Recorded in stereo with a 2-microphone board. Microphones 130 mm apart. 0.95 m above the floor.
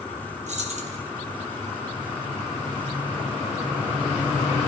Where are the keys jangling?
60° right (ahead or behind), 1.5 m.